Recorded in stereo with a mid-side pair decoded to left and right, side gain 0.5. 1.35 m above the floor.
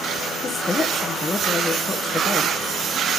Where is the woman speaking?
30° left, 1.4 m.